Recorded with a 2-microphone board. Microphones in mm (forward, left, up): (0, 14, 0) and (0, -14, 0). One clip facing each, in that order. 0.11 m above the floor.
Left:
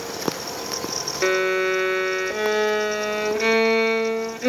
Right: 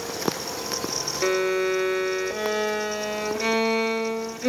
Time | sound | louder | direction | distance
1.2 | a violin | left 3 dB | 25° left (ahead or behind) | 0.7 m